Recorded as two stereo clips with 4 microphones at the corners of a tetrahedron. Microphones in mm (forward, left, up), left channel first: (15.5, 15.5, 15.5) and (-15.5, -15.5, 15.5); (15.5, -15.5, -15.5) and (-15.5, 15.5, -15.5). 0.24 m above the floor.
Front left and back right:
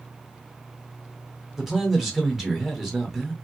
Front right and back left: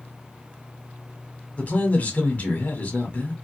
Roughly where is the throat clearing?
I don't hear throat clearing.